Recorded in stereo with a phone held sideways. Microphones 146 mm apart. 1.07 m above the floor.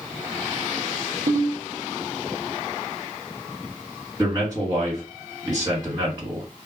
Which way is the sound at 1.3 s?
70° right (ahead or behind).